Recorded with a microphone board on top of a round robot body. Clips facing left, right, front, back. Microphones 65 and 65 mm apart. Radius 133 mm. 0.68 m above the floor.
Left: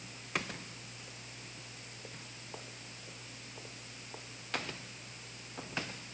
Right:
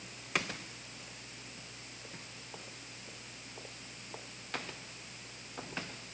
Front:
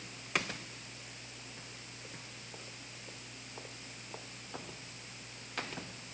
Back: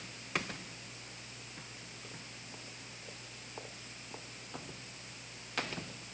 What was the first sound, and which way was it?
Only background noise.